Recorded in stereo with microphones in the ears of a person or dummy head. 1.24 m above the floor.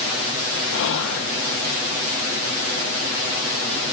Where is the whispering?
70° left (ahead or behind), 1.3 m.